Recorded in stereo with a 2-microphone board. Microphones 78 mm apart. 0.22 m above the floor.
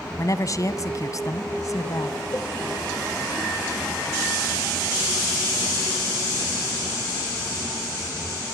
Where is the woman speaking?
45° left (ahead or behind), 1.6 m.